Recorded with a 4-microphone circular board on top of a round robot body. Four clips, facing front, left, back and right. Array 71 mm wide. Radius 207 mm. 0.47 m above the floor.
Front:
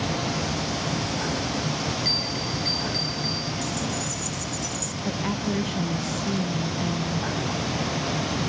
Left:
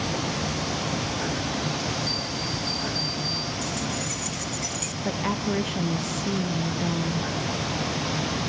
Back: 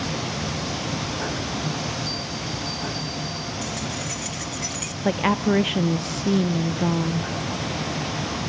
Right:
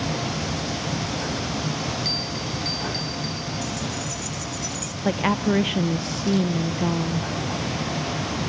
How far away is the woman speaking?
About 1.0 m.